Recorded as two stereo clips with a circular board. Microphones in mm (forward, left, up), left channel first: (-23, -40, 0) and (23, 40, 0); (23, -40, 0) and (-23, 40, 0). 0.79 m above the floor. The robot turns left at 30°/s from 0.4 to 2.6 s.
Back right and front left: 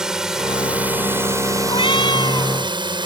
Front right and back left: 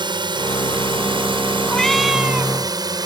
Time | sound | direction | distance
0.0 | a drone | 145° left | ?
1.7 | a cat meowing | 140° right | ?